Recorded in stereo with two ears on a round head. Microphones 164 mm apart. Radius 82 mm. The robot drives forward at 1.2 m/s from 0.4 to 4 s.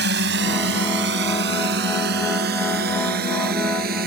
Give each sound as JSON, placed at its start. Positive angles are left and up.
{"t": 0.0, "sound": "a drone", "side_deg": -65}